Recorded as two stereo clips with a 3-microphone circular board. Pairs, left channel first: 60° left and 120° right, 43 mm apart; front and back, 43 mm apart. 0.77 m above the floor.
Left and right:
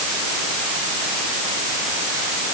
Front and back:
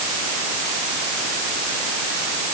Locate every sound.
Only background noise.